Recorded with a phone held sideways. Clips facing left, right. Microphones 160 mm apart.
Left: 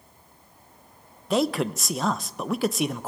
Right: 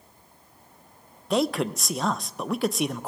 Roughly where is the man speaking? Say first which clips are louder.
Left 1 dB; centre.